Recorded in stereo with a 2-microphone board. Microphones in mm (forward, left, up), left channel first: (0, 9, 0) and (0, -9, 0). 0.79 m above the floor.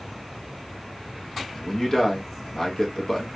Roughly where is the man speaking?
Left.